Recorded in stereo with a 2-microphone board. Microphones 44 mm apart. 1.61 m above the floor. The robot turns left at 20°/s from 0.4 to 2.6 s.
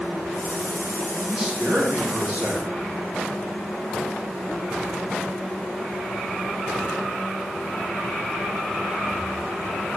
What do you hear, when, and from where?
1.3 s a man speaking: 10° right (ahead or behind), 2.0 m; by 2.7 s 35° right (ahead or behind), 2.0 m